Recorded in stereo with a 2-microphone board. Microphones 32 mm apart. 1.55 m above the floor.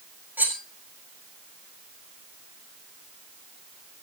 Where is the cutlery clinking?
70° right (ahead or behind), 4 m.